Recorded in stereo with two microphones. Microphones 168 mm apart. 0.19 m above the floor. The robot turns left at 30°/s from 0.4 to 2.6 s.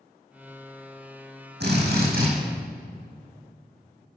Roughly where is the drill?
Right.